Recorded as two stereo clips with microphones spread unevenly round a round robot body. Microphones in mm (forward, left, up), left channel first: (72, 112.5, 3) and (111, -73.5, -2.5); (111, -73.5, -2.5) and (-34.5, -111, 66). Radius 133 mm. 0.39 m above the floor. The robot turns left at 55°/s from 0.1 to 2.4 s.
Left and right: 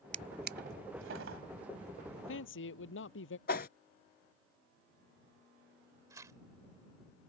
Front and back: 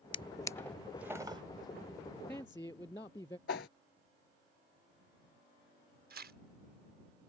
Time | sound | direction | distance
0.1 | a drawer | 30° right | ?
2.1 | a man speaking | 110° left | ?
3.5 | a whoosh | 65° left | ?
6.1 | tearing paper | 145° right | ?